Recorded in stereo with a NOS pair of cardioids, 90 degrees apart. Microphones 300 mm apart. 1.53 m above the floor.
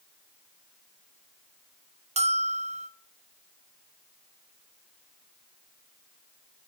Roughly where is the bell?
Ahead.